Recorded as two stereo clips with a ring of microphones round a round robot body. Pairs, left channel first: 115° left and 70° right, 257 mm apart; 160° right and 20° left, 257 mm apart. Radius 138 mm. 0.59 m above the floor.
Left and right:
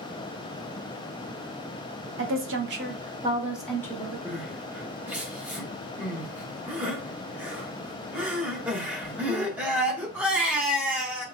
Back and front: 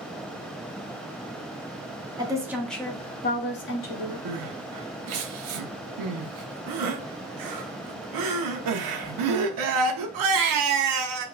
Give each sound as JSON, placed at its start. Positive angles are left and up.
{"t": 2.2, "sound": "a woman speaking", "azimuth_deg": -50, "distance_m": 0.8}
{"t": 4.2, "sound": "crying", "azimuth_deg": 20, "distance_m": 0.6}